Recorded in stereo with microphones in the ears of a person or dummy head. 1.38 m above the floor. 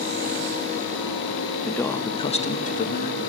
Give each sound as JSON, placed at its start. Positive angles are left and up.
{"t": 1.6, "sound": "a man speaking", "side_deg": 5, "distance_m": 1.2}